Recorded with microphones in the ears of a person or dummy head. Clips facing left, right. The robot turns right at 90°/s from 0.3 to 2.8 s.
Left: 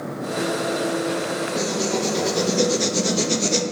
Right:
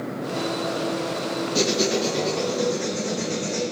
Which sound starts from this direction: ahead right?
Writing, at 1.6 s.